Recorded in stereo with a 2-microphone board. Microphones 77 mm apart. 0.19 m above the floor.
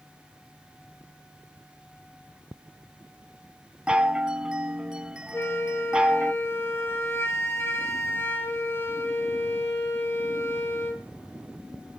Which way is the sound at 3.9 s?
15° right (ahead or behind).